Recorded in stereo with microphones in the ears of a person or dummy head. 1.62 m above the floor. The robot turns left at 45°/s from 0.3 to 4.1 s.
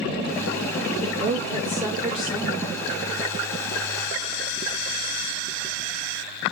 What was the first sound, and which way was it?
A woman speaking, 125° right.